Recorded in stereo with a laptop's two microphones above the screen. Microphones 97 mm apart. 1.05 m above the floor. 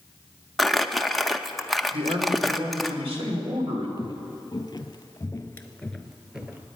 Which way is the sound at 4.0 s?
45° left (ahead or behind).